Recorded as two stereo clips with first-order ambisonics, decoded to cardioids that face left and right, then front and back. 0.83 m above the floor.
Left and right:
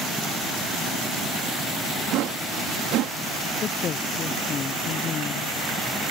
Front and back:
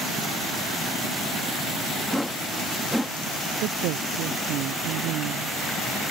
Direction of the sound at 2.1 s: 85° right.